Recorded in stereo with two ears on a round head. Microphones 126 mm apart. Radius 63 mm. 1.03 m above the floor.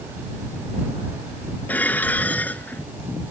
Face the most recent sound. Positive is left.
turn(degrees=10)  # may be behind; listen again after turning